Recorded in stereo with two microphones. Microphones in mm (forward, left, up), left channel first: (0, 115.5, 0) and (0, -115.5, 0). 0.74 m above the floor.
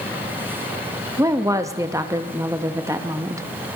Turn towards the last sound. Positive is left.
turn(degrees=-15)  # may be behind; listen again after turning